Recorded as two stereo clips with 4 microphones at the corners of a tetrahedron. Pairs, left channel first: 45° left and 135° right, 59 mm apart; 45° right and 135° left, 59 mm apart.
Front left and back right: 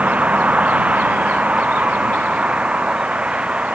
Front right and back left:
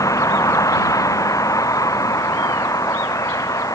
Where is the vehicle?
65° right; by 3.8 s 60° right.